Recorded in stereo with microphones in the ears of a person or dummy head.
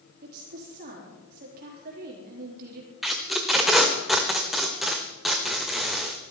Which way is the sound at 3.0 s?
Centre (ahead or behind).